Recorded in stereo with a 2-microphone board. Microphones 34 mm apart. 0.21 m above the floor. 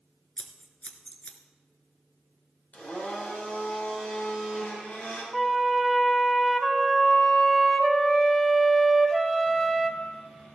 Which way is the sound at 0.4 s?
45° left (ahead or behind).